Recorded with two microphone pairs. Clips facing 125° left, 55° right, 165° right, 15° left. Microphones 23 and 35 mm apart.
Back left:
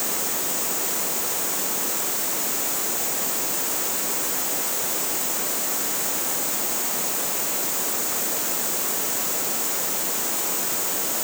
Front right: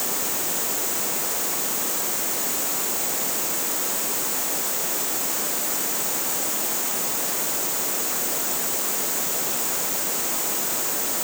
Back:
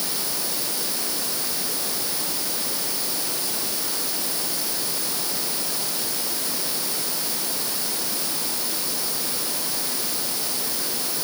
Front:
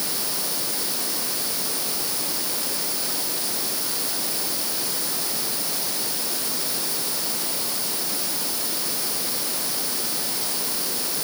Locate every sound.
Only background noise.